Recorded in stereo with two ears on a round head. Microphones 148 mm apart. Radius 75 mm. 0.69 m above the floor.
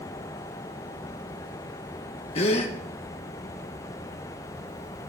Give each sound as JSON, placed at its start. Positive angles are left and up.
{"t": 2.4, "sound": "a gasp", "side_deg": 40, "distance_m": 1.1}